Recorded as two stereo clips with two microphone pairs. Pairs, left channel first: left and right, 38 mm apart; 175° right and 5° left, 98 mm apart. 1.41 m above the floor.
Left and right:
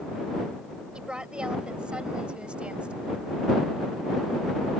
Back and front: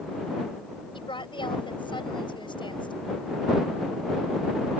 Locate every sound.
0.9 s a woman speaking: 150° right; by 3.1 s 145° right